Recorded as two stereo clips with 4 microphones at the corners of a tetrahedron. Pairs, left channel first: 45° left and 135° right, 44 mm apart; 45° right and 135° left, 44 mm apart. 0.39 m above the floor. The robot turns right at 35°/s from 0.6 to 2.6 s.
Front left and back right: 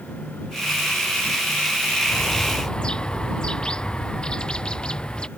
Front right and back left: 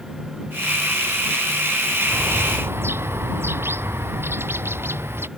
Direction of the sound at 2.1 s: 95° left.